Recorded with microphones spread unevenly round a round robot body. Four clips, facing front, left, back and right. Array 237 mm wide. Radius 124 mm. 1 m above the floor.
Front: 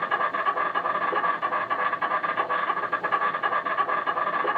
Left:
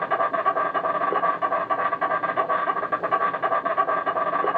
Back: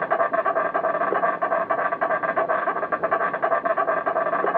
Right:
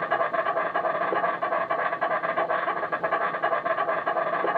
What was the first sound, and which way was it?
An insect, 170° left.